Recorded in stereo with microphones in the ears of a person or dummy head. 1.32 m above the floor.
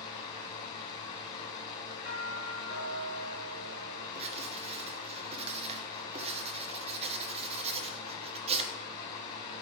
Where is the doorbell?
60° right (ahead or behind), 4.5 m.